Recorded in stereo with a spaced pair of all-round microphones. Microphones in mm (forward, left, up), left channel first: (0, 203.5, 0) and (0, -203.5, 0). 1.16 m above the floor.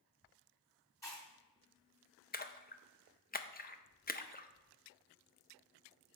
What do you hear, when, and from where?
1.0 s chewing: 5° left (ahead or behind), 2.5 m
2.3 s a splash: 25° left (ahead or behind), 0.5 m